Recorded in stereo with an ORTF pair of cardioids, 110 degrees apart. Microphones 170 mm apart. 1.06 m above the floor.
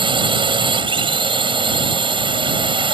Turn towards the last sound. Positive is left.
turn(degrees=-30)